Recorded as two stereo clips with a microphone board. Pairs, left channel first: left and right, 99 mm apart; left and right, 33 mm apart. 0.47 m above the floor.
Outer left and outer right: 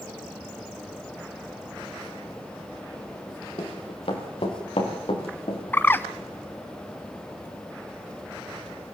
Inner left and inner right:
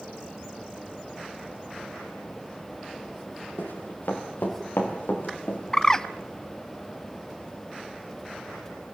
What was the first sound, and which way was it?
Running footsteps, 70° left (ahead or behind).